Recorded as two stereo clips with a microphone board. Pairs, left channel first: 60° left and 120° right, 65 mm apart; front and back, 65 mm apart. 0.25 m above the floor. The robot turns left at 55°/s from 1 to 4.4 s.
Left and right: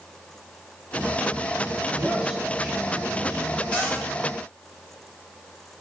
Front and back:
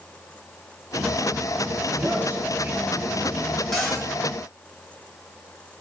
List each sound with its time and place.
1.9 s a man speaking: 170° right, 1.3 m; by 3.6 s 95° left, 1.3 m
3.7 s a cupboard door: 80° left, 1.5 m; by 4.1 s 60° left, 1.5 m